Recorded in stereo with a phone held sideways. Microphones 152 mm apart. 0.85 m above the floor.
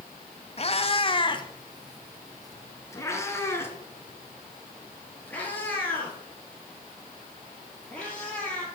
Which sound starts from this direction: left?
A cat meowing, at 0.6 s.